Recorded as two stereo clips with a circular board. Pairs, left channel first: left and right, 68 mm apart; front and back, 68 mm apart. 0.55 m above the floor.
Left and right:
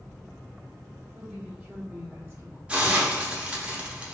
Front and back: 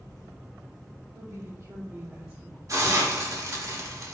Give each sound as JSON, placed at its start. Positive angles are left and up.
{"t": 1.1, "sound": "a woman speaking", "azimuth_deg": 175, "distance_m": 1.5}
{"t": 2.7, "sound": "a hiss", "azimuth_deg": -160, "distance_m": 0.9}